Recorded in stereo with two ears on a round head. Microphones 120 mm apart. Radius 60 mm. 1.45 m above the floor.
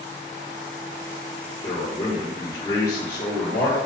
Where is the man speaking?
20° left (ahead or behind), 4.5 m.